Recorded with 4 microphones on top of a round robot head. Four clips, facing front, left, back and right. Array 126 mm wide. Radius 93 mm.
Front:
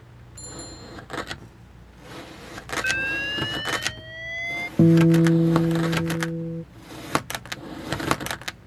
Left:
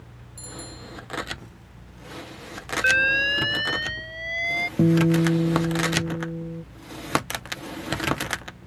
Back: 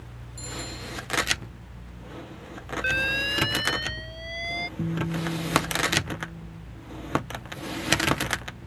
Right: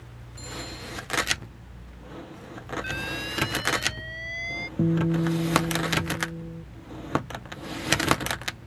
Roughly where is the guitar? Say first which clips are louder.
Left 5 dB, front 15 dB; ahead.